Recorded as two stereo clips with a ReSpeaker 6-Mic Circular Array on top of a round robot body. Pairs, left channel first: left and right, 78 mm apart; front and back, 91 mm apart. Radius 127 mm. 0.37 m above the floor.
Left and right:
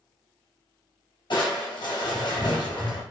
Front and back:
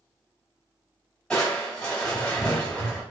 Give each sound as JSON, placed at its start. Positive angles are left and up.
{"t": 1.3, "sound": "crushing", "azimuth_deg": 80, "distance_m": 2.0}